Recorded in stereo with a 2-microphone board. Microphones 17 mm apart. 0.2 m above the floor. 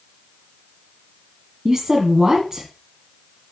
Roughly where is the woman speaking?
Right.